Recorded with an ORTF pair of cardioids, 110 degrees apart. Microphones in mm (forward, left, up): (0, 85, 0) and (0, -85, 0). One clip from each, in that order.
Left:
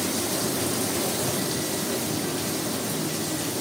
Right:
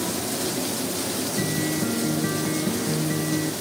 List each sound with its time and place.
1.4 s a guitar: 50° right